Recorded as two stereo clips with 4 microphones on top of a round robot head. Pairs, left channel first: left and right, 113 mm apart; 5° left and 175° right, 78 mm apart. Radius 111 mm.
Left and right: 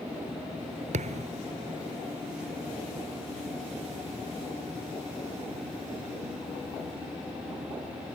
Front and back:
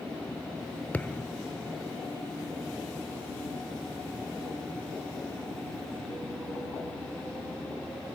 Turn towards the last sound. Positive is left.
turn(degrees=-70)